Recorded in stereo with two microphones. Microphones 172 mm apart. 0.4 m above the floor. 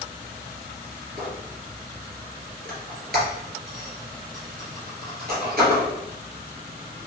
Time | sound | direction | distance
1.2 | a squeak | 65° right (ahead or behind) | 1.9 m